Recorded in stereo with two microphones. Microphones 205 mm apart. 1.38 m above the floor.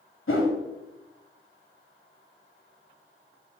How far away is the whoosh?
About 2.5 m.